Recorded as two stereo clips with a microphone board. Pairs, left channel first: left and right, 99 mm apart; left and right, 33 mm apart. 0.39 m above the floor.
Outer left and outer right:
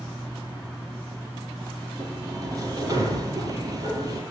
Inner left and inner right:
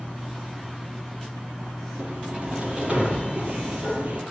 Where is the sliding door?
35° right (ahead or behind), 9.5 m.